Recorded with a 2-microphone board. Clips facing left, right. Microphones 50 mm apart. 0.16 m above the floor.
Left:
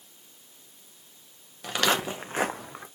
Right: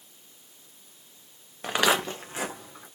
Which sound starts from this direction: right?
Footsteps, at 1.6 s.